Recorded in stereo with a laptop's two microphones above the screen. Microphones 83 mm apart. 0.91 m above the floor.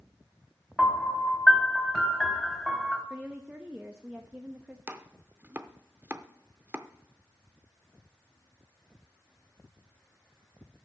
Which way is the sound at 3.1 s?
15° right (ahead or behind).